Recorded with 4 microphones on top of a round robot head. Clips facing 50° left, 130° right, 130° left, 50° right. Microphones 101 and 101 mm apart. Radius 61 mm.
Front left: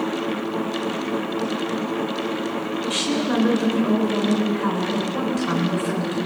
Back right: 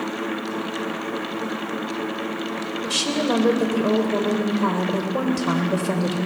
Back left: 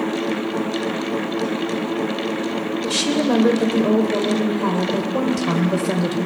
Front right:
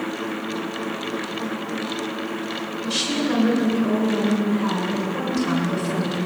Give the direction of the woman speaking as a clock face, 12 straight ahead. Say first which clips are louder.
Back right 2 dB, back left 3 dB; 6 o'clock.